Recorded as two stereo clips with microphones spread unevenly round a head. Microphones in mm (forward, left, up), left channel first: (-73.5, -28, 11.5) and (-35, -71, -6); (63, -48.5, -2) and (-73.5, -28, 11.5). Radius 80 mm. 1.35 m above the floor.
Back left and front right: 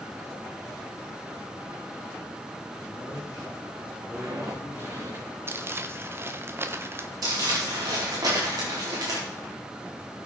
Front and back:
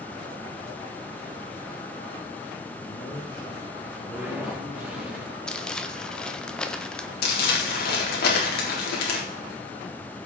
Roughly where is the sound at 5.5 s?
Right.